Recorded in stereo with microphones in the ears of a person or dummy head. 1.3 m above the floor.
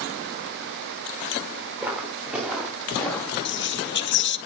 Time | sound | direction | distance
1.8 | footsteps | 15° right (ahead or behind) | 5 m
3.5 | whispering | 55° left (ahead or behind) | 1.0 m